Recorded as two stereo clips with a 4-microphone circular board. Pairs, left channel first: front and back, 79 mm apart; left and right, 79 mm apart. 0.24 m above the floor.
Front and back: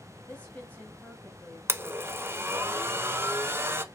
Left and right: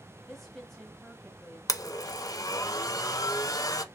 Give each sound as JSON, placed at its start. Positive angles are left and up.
{"t": 0.3, "sound": "a woman speaking", "azimuth_deg": 15, "distance_m": 0.9}
{"t": 1.7, "sound": "a blender", "azimuth_deg": 125, "distance_m": 0.6}